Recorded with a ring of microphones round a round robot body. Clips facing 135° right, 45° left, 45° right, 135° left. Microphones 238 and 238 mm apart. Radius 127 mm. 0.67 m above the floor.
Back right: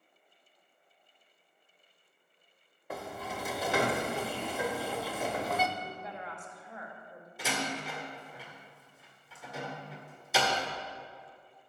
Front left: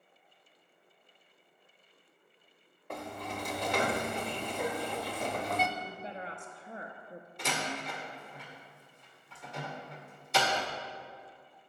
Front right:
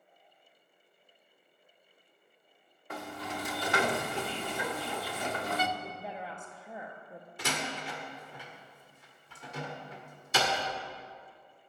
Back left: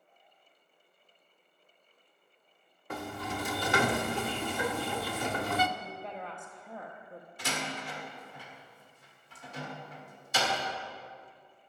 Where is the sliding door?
140° left, 0.6 m.